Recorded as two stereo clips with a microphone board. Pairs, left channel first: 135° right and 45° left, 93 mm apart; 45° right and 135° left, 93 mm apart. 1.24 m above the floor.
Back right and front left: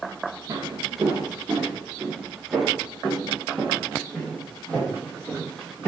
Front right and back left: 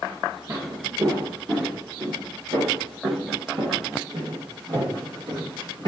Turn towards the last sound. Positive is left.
turn(degrees=160)